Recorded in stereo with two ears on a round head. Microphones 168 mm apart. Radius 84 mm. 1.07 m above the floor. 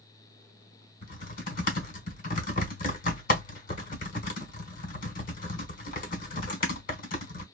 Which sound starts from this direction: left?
Typing on a keyboard, at 1.0 s.